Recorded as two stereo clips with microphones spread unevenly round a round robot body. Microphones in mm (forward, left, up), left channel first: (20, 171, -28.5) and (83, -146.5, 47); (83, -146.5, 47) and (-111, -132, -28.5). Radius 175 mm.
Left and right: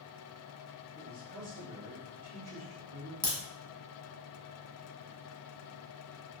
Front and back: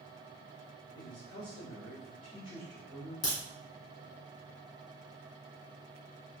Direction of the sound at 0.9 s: 15° right.